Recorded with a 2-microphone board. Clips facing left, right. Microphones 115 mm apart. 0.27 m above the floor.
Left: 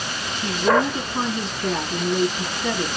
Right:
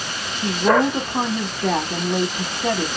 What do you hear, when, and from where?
0.4 s a woman speaking: 55° right (ahead or behind), 1.9 m